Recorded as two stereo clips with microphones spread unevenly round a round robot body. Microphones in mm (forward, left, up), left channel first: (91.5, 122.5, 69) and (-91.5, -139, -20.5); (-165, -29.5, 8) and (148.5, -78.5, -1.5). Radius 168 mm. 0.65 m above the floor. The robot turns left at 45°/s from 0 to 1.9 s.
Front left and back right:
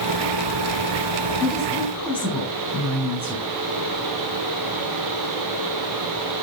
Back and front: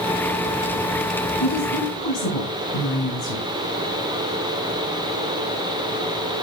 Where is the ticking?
No ticking in this recording.